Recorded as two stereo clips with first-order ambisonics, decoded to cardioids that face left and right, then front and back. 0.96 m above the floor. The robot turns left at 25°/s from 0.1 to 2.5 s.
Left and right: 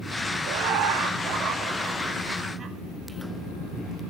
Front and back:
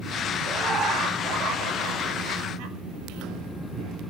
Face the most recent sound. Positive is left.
turn(degrees=-160)